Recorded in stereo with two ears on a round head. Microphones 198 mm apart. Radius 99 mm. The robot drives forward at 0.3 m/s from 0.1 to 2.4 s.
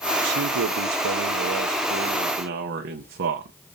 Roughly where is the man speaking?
Right.